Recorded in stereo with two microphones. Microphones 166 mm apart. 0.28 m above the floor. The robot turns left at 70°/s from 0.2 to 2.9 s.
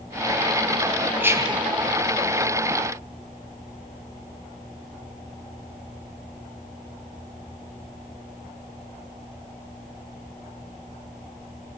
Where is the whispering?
15° right, 2.5 m; by 1.7 s 50° right, 2.5 m.